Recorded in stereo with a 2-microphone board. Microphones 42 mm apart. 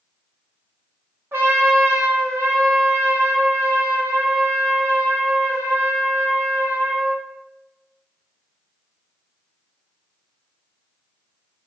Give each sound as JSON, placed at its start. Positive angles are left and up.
{"t": 1.3, "sound": "a trumpet", "side_deg": -65, "distance_m": 0.9}